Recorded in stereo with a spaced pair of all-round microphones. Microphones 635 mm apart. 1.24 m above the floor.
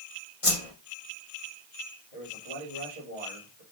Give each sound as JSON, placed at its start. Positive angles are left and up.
{"t": 0.4, "sound": "a whoosh", "side_deg": 60, "distance_m": 1.8}
{"t": 2.1, "sound": "a man speaking", "side_deg": 60, "distance_m": 4.5}